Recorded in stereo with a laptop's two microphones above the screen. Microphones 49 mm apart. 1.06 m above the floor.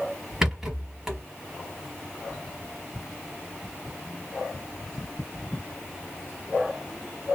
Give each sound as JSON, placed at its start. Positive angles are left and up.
{"t": 0.4, "sound": "a rattle", "side_deg": -10, "distance_m": 1.1}